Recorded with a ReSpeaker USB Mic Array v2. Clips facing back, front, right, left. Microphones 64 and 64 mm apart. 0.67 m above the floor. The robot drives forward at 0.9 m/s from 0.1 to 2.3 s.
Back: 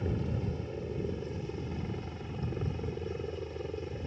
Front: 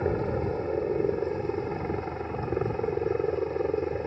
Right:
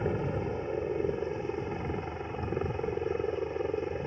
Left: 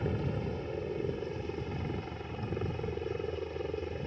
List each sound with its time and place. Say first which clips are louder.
0.0 s a helicopter: front 8 dB, right 3 dB; 25° right